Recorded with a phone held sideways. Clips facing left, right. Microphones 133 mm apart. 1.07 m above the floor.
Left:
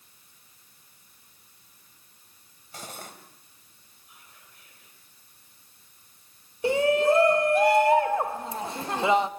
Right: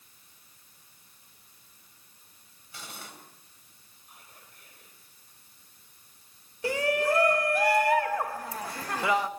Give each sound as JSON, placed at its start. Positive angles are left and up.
{"t": 2.7, "sound": "cutlery clinking", "side_deg": 45, "distance_m": 3.5}
{"t": 4.1, "sound": "whispering", "side_deg": -45, "distance_m": 4.0}
{"t": 6.6, "sound": "a shout", "side_deg": 25, "distance_m": 1.2}